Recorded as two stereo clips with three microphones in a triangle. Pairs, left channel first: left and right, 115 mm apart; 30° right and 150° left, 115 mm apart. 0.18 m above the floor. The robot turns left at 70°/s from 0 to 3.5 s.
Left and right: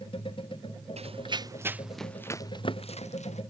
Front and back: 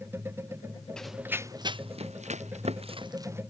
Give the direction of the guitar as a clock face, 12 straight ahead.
No guitar in this recording.